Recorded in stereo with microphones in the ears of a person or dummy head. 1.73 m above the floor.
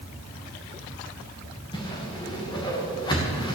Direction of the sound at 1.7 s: 20° left (ahead or behind).